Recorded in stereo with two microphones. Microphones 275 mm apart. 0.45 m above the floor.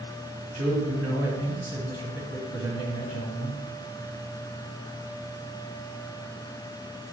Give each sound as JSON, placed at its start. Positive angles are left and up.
{"t": 0.5, "sound": "a man speaking", "side_deg": -55, "distance_m": 3.5}